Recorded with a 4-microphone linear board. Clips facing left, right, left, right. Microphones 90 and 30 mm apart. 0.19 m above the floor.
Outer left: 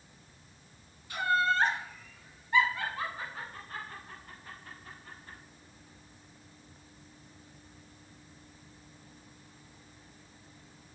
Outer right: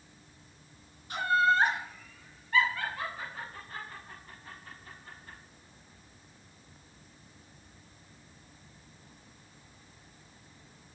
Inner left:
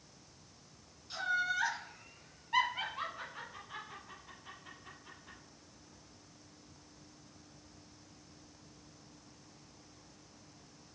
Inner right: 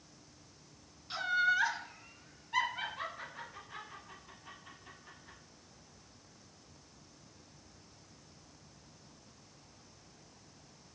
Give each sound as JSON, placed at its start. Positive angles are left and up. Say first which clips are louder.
{"t": 1.1, "sound": "laughter", "louder": "outer right 2 dB, inner right 4 dB", "side_deg": -25, "distance_m": 1.5}